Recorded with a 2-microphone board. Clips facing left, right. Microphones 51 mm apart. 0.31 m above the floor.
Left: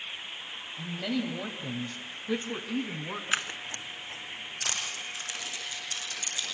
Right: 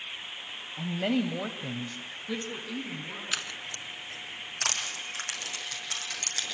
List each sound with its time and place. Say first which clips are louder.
0.8 s a woman speaking: right 4 dB; 40° right (ahead or behind), 2 m; by 3.2 s 35° left (ahead or behind), 3 m
3.3 s scissors: left 5 dB; 30° left (ahead or behind), 0.6 m
4.6 s crushing: right 2 dB; 60° right (ahead or behind), 8 m